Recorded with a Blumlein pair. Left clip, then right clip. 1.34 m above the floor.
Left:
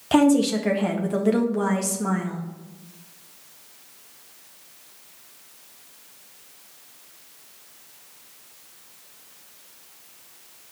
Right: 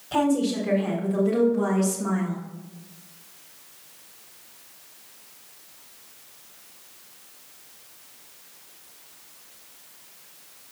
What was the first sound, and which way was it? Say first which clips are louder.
A woman speaking: left 5 dB; 55° left.